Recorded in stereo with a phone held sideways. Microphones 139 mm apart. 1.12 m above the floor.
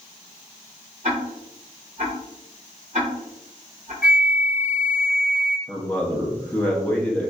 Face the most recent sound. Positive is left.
turn(degrees=10)  # may be behind; listen again after turning